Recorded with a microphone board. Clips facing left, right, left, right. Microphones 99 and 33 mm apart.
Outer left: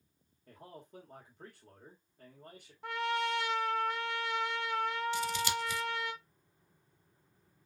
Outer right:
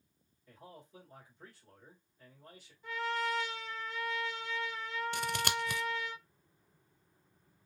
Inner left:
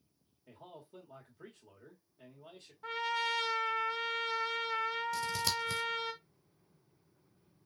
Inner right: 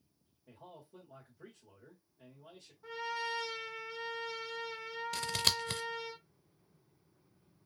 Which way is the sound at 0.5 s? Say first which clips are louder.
Outer left 2 dB, inner left 1 dB; 45° left (ahead or behind).